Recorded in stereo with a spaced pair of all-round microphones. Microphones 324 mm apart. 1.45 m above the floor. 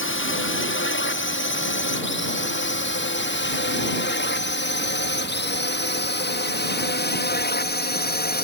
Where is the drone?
40° left (ahead or behind); by 8.4 s 30° left (ahead or behind).